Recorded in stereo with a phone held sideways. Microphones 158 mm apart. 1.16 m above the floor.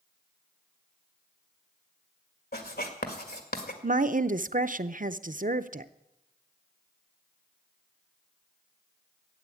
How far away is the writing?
About 1.9 m.